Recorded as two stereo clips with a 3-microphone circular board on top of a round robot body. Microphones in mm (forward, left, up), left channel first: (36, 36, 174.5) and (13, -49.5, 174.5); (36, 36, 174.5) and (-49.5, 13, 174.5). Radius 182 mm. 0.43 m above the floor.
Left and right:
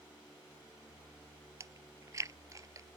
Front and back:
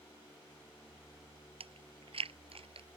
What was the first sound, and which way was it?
Chewing, 160° right.